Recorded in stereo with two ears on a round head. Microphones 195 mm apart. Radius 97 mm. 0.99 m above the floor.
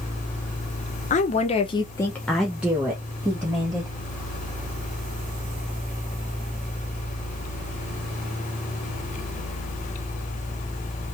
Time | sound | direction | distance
1.1 | a woman speaking | 35° left (ahead or behind) | 0.7 m